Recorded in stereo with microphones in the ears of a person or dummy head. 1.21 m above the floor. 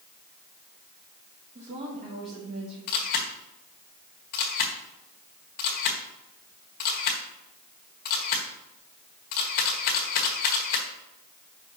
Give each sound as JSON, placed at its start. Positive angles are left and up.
{"t": 1.6, "sound": "a woman speaking", "side_deg": -35, "distance_m": 1.1}
{"t": 2.9, "sound": "a camera shutter", "side_deg": 55, "distance_m": 1.4}